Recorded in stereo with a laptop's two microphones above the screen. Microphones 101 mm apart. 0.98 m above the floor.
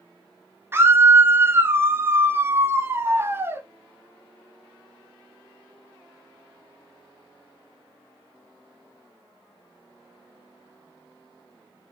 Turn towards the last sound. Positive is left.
turn(degrees=-25)  # may be behind; listen again after turning